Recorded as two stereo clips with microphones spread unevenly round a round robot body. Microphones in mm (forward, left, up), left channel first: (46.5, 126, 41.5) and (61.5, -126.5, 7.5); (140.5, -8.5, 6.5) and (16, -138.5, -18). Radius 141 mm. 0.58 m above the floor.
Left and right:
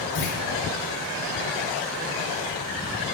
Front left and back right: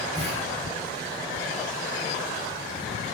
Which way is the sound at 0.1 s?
135° left.